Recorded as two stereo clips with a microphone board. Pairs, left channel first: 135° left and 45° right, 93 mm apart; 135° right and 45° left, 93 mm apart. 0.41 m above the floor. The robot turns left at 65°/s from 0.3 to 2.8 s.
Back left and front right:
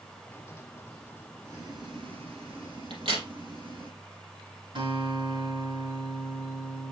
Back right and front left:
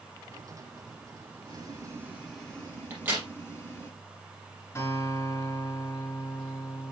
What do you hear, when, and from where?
1.4 s boiling: 20° left, 5 m; by 3.9 s 70° right, 5 m
2.9 s a crack: 25° right, 3.5 m
4.8 s a guitar: 75° right, 5 m